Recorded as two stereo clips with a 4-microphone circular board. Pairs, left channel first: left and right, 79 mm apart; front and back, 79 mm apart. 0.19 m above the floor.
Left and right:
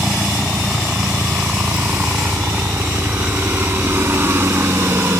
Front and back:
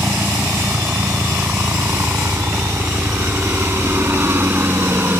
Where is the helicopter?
165° right; by 5.2 s 130° right.